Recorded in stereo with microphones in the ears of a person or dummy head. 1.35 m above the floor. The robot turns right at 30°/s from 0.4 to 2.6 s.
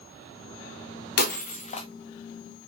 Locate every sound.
1.2 s breaking glass: 55° left (ahead or behind), 1.2 m; by 1.9 s 35° left (ahead or behind), 1.2 m